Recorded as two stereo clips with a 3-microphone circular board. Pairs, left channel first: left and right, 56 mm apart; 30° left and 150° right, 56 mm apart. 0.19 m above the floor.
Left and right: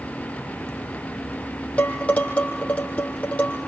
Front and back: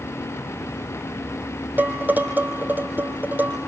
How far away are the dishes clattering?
About 4 m.